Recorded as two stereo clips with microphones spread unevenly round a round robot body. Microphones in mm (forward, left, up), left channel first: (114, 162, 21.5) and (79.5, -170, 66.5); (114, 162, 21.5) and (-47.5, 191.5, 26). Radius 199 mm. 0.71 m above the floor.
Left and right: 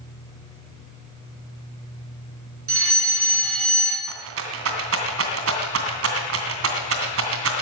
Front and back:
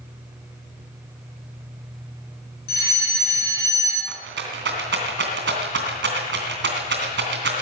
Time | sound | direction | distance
2.7 | a fire alarm | 45° right | 7 m
4.1 | a rattle | 155° right | 2.5 m